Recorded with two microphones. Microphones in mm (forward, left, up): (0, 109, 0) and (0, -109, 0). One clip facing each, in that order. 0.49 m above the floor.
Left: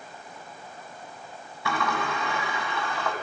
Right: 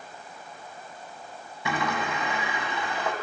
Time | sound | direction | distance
1.6 | a sliding door | 20° right (ahead or behind) | 1.5 m